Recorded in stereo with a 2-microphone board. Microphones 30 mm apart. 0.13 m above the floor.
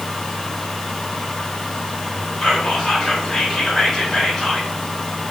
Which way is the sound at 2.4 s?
10° left (ahead or behind).